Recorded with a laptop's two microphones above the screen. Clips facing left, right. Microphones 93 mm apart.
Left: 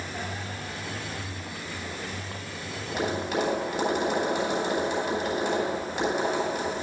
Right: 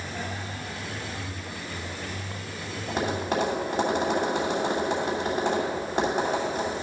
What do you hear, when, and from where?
2.9 s tapping: 40° right (ahead or behind), 2.5 m